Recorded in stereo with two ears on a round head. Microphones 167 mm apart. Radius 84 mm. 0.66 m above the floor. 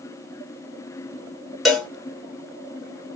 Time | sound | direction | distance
1.6 | a cowbell | centre (ahead or behind) | 1.0 m